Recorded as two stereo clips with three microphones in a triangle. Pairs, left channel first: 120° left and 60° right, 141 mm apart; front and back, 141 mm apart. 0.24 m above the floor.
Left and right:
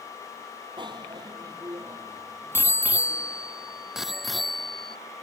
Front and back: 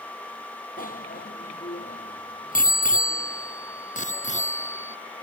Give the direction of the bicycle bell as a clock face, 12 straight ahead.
12 o'clock.